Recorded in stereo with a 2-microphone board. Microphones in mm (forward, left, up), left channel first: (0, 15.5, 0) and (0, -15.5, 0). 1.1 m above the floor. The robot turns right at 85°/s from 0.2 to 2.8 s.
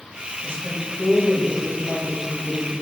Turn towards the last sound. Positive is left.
turn(degrees=130)